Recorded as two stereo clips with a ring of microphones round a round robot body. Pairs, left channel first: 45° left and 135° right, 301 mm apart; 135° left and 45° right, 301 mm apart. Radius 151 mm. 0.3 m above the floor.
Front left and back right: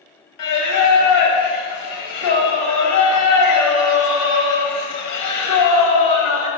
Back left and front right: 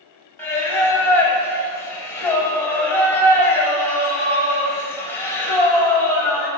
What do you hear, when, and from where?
0.4 s singing: 55° left, 0.9 m